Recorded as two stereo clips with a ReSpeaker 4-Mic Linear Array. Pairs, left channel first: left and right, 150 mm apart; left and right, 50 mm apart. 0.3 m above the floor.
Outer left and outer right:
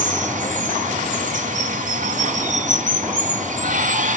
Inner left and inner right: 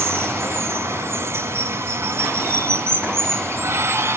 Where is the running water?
60° right (ahead or behind), 1.4 m.